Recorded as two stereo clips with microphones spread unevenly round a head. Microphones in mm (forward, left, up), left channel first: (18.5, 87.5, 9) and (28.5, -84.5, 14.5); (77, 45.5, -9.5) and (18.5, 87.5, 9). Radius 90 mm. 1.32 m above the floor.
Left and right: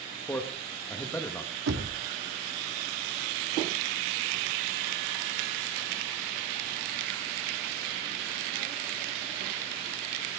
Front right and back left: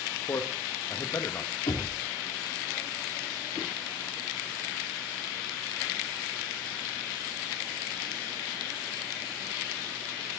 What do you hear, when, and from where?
0.3 s a man speaking: 15° left, 1.8 m
1.7 s knocking: 80° right, 2.0 m